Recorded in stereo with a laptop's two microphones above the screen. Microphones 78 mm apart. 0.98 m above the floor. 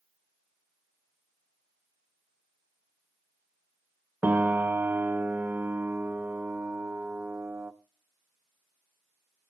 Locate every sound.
4.2 s a piano: 25° right (ahead or behind), 0.9 m